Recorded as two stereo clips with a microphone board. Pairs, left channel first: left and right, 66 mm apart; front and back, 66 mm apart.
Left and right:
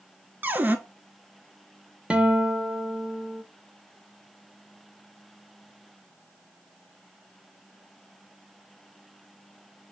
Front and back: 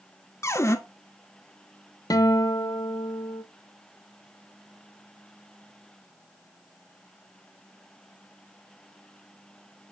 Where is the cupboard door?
30° right, 0.5 m.